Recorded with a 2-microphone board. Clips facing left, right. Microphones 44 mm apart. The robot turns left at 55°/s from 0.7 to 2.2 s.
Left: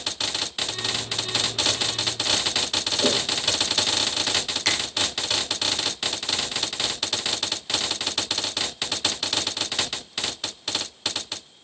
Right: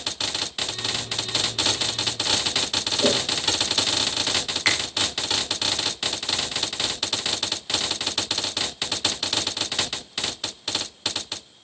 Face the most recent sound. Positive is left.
turn(degrees=-30)  # may be behind; listen again after turning